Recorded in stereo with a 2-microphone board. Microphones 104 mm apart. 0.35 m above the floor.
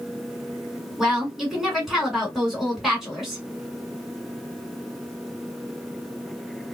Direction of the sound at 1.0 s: 5° right (ahead or behind).